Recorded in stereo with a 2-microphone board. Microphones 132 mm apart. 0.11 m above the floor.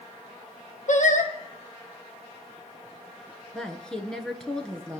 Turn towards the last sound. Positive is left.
turn(degrees=5)  # may be behind; listen again after turning